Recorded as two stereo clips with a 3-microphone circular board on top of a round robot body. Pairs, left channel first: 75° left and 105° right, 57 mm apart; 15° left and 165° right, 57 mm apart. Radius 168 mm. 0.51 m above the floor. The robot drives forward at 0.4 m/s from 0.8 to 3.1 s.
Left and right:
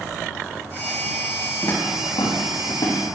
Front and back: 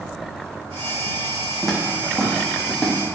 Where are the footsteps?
100° left, 3 m; by 3.1 s 105° left, 4 m.